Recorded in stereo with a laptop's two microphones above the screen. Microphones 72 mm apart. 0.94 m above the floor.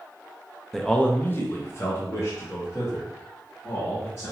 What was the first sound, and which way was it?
A man speaking, 5° left (ahead or behind).